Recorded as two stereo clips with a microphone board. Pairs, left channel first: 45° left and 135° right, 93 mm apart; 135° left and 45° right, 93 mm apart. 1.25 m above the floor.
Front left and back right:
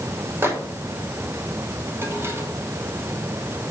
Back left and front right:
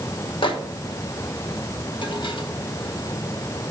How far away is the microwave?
About 0.9 m.